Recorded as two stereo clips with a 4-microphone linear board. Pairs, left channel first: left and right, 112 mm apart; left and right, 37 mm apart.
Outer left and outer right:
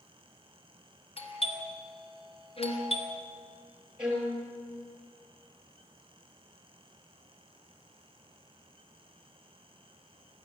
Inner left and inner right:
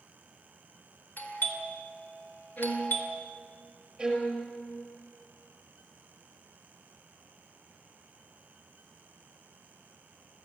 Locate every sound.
1.2 s a doorbell: 60° left (ahead or behind), 3.5 m
2.6 s a violin: 55° left (ahead or behind), 3.5 m
4.0 s a violin: 10° right (ahead or behind), 5.5 m